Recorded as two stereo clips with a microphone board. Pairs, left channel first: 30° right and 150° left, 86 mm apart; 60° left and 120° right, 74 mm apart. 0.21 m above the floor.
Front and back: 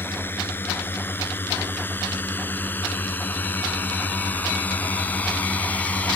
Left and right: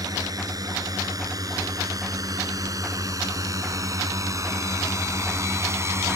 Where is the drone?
95° right.